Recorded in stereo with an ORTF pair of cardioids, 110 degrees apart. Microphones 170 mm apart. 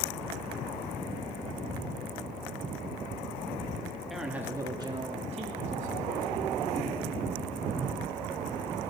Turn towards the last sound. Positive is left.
turn(degrees=-55)